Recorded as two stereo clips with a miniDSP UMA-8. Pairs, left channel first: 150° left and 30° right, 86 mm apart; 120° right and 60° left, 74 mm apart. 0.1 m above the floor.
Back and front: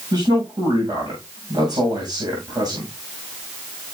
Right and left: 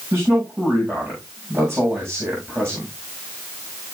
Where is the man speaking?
Straight ahead, 8 m.